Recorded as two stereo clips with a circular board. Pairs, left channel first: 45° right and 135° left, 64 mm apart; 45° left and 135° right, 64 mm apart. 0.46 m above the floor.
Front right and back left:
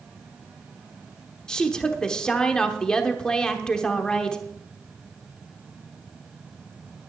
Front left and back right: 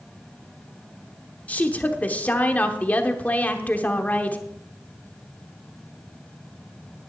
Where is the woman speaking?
20° left, 1.0 m.